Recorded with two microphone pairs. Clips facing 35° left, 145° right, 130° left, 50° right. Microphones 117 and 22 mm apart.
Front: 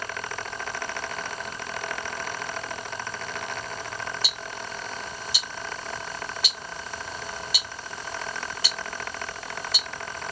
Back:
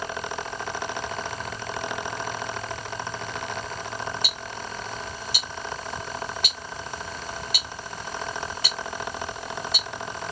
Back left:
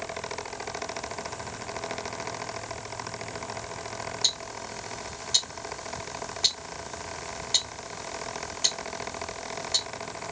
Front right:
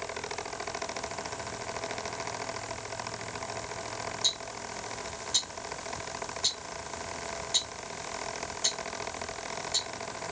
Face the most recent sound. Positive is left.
turn(degrees=180)